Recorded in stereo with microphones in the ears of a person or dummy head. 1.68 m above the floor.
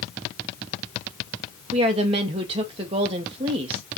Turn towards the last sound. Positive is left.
turn(degrees=-30)  # may be behind; listen again after turning